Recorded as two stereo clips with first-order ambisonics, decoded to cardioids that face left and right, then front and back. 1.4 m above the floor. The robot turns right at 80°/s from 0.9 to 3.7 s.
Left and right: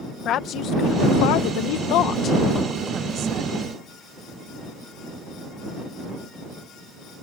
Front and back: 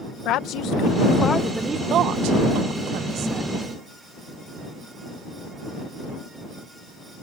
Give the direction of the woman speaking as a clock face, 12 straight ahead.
11 o'clock.